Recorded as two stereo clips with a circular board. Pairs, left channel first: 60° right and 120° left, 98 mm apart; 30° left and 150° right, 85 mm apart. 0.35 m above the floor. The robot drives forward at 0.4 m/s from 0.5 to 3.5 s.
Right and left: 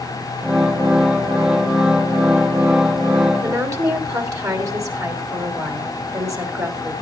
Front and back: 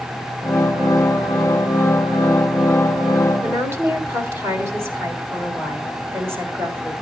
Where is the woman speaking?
160° left, 2.0 m.